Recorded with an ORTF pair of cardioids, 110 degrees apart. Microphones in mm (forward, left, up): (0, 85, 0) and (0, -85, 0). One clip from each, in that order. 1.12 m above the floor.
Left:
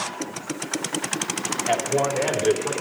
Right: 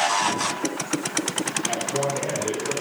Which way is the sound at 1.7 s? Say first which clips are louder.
Left 7 dB; 60° left.